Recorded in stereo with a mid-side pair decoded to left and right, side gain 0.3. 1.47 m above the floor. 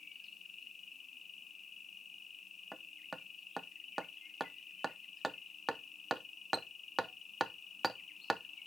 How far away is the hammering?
About 0.9 m.